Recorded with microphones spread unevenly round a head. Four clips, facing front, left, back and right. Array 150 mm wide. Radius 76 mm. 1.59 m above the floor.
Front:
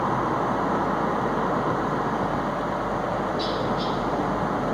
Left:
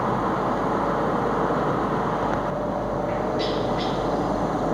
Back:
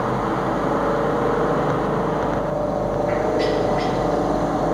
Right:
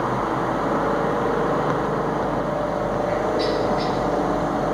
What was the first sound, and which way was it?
A helicopter, 155° right.